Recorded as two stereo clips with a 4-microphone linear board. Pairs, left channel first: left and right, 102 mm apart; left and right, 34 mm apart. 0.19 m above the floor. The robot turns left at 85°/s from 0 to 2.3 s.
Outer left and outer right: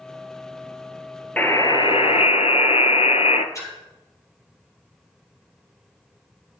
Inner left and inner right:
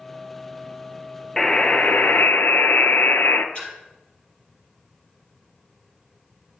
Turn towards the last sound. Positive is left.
turn(degrees=30)  # may be behind; listen again after turning